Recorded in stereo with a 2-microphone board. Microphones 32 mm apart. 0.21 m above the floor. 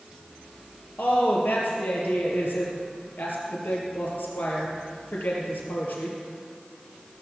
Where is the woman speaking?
75° left (ahead or behind), 4.5 m.